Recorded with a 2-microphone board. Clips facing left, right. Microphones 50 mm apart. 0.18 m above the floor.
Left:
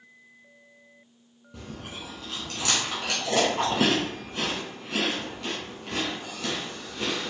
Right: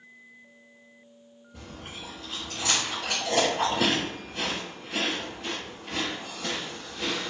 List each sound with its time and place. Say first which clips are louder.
1.5 s chewing: left 2 dB; 80° left, 1.4 m